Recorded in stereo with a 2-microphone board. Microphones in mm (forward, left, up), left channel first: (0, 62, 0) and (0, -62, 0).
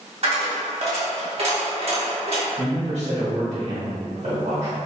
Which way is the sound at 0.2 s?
55° right (ahead or behind).